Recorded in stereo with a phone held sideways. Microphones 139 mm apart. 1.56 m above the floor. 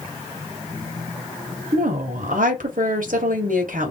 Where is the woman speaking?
80° right, 0.9 m.